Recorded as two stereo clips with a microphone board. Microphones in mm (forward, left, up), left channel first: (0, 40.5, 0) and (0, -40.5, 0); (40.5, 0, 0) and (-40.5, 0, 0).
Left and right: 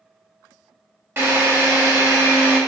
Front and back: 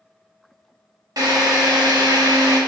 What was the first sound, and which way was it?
A drill, 150° right.